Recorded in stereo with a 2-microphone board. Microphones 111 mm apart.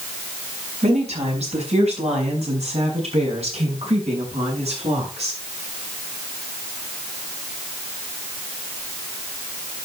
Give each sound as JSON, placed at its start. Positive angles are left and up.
{"t": 0.8, "sound": "a woman speaking", "side_deg": -85, "distance_m": 5.0}